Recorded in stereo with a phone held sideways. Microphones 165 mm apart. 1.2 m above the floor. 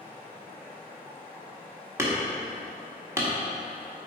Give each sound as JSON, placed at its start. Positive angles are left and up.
{"t": 0.0, "sound": "running water", "side_deg": 15, "distance_m": 3.0}
{"t": 2.0, "sound": "hammering", "side_deg": -15, "distance_m": 1.9}